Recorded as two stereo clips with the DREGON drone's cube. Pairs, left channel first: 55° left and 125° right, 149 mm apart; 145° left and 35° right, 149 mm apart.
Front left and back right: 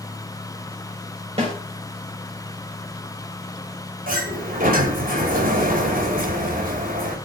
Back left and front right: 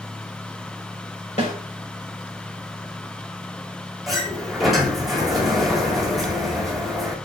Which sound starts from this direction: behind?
A snare drum, at 1.4 s.